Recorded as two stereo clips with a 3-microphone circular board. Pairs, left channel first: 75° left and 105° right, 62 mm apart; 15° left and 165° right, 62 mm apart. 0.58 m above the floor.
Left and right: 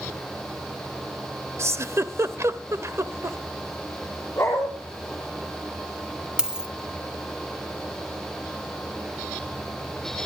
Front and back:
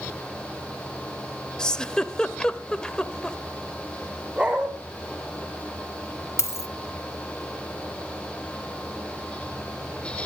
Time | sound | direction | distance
1.6 | a giggle | 60° right | 1.1 m
4.4 | a dog barking | 125° left | 5 m
6.4 | a dropped coin | 30° right | 1.7 m